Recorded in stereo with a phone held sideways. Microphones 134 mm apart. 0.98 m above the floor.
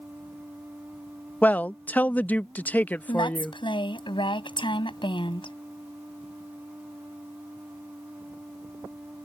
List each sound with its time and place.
0.0 s a machine running: 10° right (ahead or behind)
1.4 s a man speaking: 15° left (ahead or behind)
3.1 s a woman speaking: 40° left (ahead or behind)